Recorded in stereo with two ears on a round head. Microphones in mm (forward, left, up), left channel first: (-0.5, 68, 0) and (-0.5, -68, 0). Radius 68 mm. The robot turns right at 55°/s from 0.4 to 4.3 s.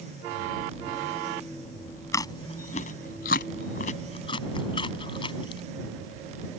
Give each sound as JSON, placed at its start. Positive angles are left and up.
{"t": 2.1, "sound": "chewing", "side_deg": 20}